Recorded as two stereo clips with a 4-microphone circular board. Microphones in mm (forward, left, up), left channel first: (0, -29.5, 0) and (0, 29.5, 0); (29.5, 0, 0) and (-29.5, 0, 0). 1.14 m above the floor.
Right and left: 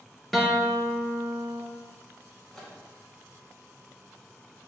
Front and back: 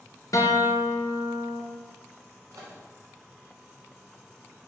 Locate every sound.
0.3 s a guitar: 5° right, 0.7 m
2.5 s a microwave: 175° right, 1.1 m